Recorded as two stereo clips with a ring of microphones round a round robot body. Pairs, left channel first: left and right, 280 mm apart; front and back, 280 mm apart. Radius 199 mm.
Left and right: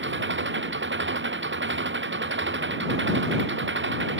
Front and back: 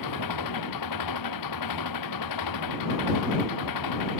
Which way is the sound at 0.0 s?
40° right.